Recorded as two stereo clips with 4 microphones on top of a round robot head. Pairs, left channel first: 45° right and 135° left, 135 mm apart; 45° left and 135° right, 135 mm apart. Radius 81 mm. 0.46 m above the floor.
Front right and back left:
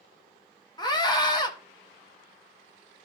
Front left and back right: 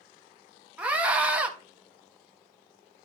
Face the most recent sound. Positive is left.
turn(degrees=-65)